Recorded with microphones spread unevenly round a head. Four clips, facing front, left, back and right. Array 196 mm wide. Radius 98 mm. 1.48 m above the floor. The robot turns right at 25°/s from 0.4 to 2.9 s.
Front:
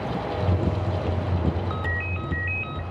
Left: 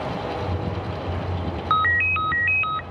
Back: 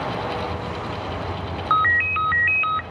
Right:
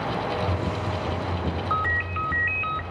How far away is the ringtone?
About 0.6 m.